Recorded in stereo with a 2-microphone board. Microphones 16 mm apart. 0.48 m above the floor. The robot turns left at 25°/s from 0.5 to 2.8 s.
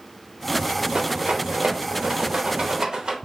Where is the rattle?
65° right (ahead or behind), 0.6 m; by 3.1 s 50° right (ahead or behind), 0.6 m.